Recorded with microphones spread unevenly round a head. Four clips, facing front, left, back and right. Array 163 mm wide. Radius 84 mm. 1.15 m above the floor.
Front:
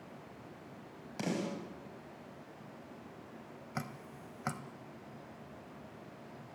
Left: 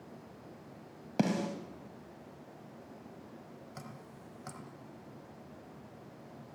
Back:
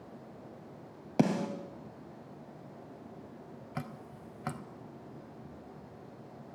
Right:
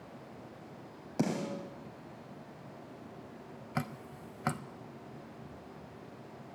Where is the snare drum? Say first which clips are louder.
Left 2 dB, back 8 dB; 160° left, 3.5 m.